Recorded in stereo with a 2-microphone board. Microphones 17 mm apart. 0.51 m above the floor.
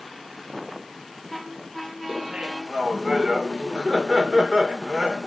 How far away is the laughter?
About 1.8 m.